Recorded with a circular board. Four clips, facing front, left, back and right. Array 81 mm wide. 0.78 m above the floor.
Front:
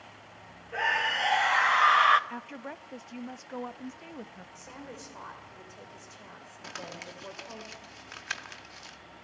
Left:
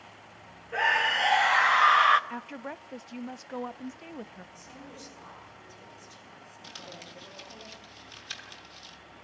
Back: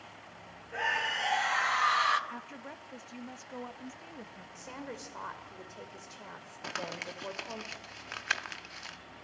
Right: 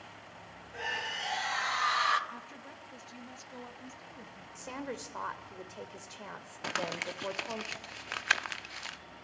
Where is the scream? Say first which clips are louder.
Left 12 dB, front 4 dB; 75° left, 1.6 m; by 2.2 s 40° left, 0.8 m.